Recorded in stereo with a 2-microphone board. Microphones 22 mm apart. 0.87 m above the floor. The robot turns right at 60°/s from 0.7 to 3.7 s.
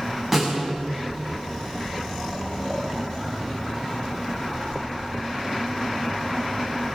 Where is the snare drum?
5° right (ahead or behind), 7 m.